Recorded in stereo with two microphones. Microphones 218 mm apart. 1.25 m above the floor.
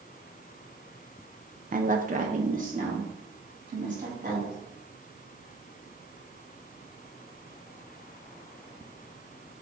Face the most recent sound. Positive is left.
turn(degrees=-35)  # may be behind; listen again after turning